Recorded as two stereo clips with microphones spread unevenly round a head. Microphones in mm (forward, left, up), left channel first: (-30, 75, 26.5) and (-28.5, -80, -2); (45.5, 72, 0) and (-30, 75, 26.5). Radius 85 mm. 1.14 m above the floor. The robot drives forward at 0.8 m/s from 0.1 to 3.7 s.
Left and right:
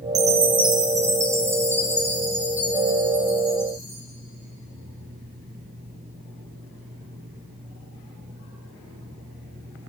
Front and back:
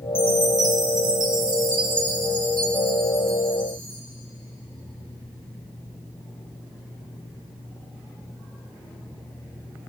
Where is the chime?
125° right, 0.5 m; by 4.0 s 175° right, 3 m.